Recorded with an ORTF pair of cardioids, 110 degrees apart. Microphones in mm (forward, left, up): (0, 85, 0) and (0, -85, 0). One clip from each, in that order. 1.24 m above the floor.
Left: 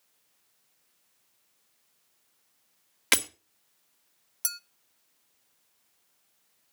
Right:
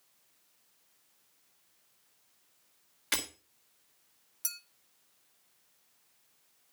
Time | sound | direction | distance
3.1 | breaking glass | 70° left | 1.9 m
4.4 | a clink | 30° left | 0.7 m